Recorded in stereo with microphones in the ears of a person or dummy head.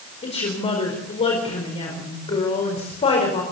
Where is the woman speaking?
30° left (ahead or behind), 4.5 m.